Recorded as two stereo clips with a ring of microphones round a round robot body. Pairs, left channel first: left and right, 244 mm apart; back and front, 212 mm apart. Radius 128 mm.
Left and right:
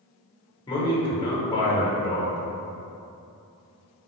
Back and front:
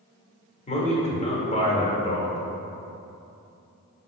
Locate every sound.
0.7 s a man speaking: 150° left, 0.9 m